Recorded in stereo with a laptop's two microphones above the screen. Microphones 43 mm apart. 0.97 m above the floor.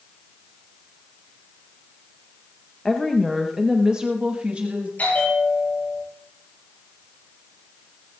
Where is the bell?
50° left (ahead or behind), 7.5 m.